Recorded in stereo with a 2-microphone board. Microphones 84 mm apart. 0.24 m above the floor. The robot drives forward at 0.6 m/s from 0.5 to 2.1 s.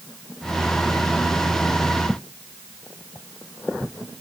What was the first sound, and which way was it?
Only background noise.